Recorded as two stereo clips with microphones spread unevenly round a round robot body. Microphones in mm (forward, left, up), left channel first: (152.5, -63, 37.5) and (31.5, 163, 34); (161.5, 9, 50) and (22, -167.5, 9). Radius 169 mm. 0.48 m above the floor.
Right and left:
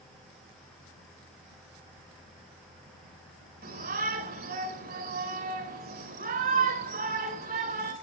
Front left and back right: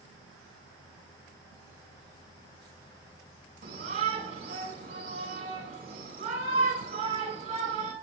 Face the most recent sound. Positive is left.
turn(degrees=175)